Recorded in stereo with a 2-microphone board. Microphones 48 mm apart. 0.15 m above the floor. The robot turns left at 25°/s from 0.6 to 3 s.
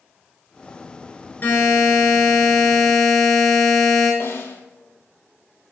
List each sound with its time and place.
1.4 s a buzzer: 55° left, 2.0 m; by 4.1 s 15° left, 2.0 m
4.2 s a snare drum: 65° left (ahead or behind), 0.9 m